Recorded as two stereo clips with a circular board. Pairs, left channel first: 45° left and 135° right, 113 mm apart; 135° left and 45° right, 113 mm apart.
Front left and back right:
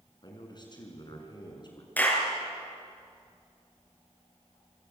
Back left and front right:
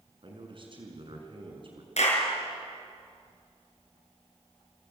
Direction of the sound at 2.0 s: 120° left.